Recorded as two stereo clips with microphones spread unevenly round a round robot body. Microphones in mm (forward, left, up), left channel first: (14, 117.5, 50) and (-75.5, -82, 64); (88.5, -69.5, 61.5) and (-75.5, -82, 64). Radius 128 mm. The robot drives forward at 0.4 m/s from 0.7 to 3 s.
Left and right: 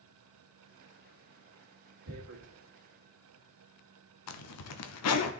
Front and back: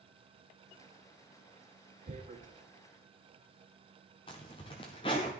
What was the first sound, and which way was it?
Tearing paper, 130° right.